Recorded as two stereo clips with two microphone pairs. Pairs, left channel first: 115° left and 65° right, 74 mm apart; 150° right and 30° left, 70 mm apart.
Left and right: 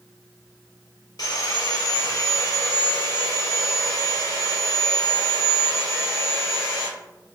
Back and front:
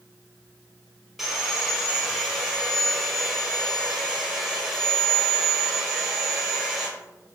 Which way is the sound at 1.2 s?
115° left.